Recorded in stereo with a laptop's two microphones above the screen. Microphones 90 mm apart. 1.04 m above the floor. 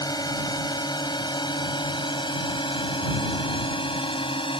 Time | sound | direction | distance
0.0 | a drone | 45° left (ahead or behind) | ?